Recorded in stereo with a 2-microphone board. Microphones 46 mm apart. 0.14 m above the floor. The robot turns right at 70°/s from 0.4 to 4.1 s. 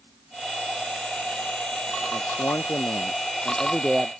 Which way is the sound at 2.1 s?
70° left.